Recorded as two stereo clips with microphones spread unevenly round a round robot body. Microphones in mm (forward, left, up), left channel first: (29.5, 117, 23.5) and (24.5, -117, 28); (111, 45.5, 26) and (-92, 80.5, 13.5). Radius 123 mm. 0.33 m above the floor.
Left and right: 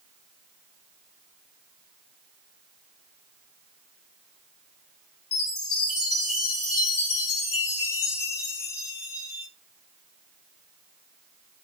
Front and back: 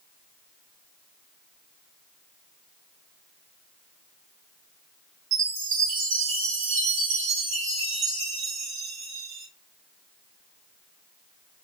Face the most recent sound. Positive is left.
turn(degrees=145)